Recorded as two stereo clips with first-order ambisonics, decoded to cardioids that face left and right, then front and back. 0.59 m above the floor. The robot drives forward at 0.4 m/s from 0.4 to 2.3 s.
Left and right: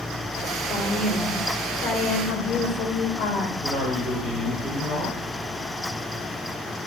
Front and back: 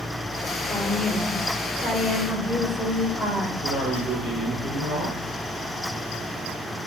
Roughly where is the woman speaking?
Ahead left.